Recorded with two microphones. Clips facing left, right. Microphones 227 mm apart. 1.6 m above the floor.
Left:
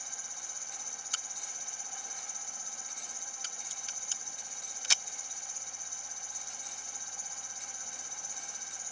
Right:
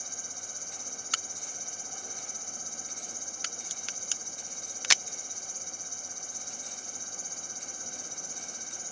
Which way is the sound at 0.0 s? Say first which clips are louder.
Right 6 dB; 45° right (ahead or behind).